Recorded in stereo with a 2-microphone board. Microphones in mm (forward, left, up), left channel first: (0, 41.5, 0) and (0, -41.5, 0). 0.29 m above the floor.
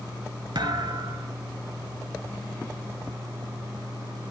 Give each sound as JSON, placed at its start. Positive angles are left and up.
{"t": 0.6, "sound": "a thud", "side_deg": -65, "distance_m": 0.9}